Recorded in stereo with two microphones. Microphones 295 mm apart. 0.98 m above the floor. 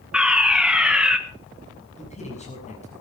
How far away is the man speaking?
About 7 m.